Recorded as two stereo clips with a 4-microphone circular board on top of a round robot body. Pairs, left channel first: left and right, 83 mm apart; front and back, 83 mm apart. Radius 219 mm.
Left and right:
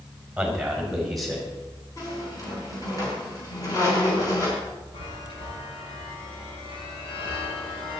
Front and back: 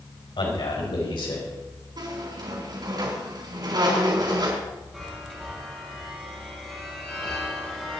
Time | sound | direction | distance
0.4 | a man speaking | 5° right | 5 m
2.0 | a squeak | 140° left | 4.5 m
4.9 | a chime | 85° left | 5.5 m